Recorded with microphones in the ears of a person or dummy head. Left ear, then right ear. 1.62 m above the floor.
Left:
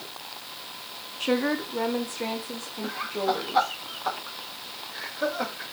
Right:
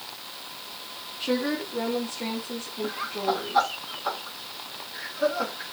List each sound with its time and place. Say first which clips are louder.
1.2 s a woman speaking: left 2 dB; 30° left (ahead or behind), 1.0 m; by 3.7 s 20° left (ahead or behind), 2.5 m
2.8 s laughter: left 1 dB; 10° left (ahead or behind), 3.5 m